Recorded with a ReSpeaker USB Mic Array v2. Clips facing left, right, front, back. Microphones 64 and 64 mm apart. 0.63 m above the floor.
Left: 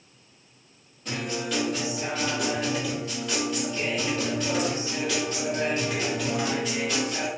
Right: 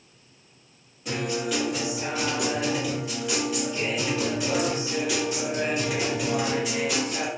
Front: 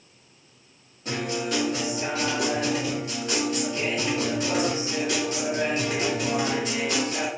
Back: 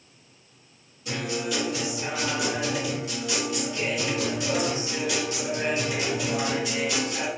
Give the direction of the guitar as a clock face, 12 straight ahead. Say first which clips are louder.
Right 3 dB, front 1 dB; 12 o'clock.